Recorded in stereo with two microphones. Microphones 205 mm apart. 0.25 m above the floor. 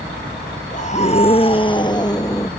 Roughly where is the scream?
Left.